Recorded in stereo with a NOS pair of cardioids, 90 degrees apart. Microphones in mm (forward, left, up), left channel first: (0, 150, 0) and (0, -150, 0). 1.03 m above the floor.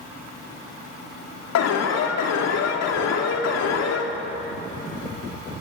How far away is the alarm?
About 3 m.